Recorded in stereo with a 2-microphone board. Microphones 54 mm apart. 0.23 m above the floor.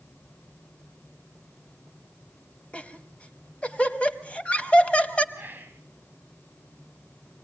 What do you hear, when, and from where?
2.7 s laughter: 20° left (ahead or behind), 1.0 m
5.3 s whispering: 40° right (ahead or behind), 1.4 m